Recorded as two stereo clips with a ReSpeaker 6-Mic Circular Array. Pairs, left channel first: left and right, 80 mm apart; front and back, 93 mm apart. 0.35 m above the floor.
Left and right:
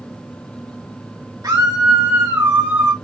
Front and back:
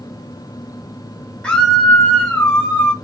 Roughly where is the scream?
Right.